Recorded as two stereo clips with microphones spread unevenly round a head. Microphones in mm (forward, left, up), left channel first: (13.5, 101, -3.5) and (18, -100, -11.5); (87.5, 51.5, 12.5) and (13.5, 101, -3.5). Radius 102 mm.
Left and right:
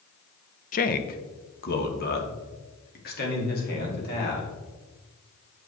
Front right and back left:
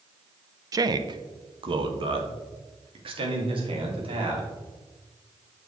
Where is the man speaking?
135° left, 0.6 m; by 4.5 s 140° left, 3 m.